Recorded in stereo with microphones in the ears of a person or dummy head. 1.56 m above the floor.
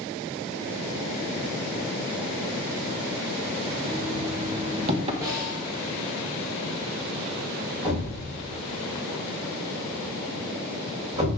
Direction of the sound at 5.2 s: 20° right (ahead or behind).